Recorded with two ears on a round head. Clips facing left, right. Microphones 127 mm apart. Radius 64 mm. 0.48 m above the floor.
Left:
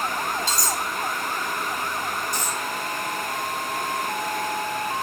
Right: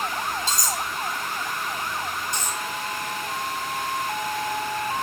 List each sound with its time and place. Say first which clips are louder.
0.5 s cutlery clinking: left 1 dB; 55° right (ahead or behind), 1.9 m
2.3 s a dropped coin: left 2 dB; 25° right (ahead or behind), 2 m